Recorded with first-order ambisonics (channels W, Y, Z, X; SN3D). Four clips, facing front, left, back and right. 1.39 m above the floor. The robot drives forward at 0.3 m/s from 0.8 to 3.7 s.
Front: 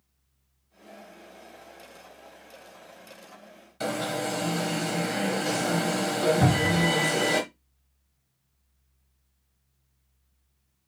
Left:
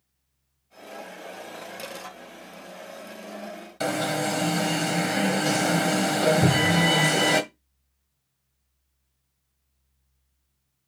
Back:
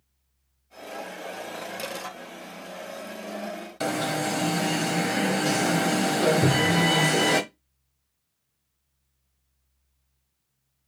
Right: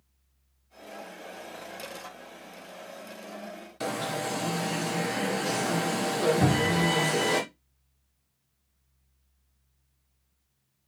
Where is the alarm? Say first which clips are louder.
Left 5 dB, back 2 dB; 140° left, 0.9 m.